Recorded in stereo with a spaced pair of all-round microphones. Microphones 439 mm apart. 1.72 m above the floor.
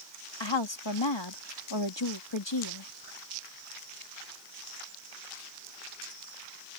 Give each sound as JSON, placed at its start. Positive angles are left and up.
{"t": 0.4, "sound": "a woman speaking", "side_deg": 75}